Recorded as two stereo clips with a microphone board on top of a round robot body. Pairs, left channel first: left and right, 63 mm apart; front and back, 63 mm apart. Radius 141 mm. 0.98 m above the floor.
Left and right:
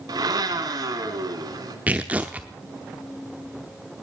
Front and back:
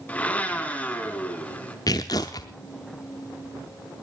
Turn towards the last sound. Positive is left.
turn(degrees=-20)